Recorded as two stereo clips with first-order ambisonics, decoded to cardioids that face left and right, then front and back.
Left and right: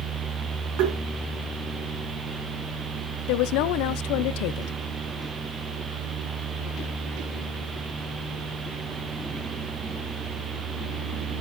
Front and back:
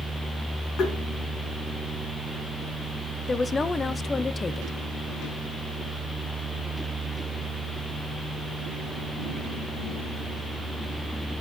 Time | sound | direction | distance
0.8 | tapping | 60° right | 4.5 m
3.3 | a woman speaking | 75° left | 0.6 m